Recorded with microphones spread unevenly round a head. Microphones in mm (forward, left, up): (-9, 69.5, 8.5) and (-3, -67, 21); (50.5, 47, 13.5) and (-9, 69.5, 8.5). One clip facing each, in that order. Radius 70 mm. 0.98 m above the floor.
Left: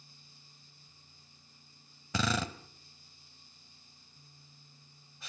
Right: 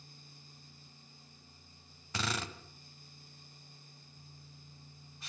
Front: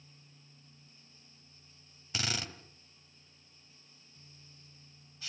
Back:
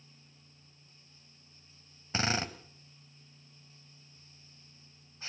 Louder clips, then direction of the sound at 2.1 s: Left 6 dB, back 6 dB; 100° left.